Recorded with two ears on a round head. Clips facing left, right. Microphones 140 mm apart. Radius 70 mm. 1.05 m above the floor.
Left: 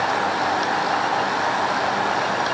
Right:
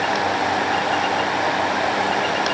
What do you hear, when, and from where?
Only background noise.